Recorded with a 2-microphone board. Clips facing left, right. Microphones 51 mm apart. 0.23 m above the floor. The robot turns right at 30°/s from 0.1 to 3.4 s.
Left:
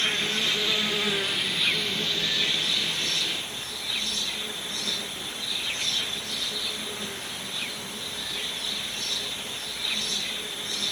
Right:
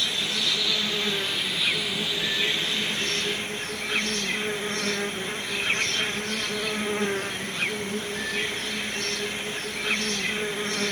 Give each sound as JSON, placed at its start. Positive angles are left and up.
{"t": 0.0, "sound": "an insect", "azimuth_deg": 135}